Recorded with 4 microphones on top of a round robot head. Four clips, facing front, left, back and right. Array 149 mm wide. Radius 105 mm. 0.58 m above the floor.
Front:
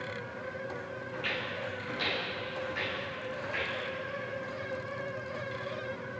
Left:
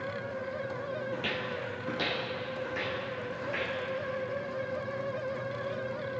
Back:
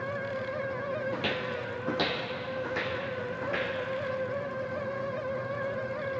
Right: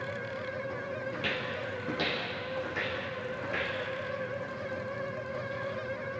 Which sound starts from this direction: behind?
Footsteps, at 1.1 s.